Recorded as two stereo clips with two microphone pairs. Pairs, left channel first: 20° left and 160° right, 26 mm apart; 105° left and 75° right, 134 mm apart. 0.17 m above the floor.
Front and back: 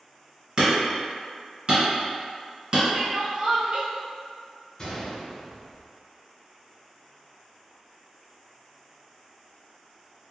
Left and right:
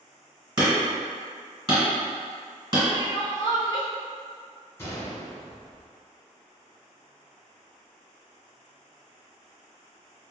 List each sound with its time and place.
0.6 s hammering: 115° right, 1.8 m
2.9 s crying: 160° left, 0.6 m
4.8 s a gunshot: 60° left, 1.4 m